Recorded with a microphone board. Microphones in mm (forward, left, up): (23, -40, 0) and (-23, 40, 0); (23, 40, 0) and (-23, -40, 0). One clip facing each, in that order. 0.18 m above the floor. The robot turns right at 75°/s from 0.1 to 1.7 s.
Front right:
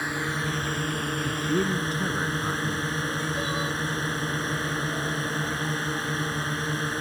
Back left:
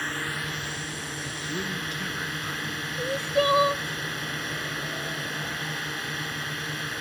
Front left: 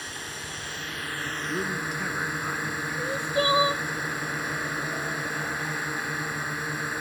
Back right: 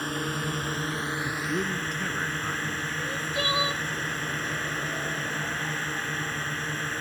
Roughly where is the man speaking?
Ahead right.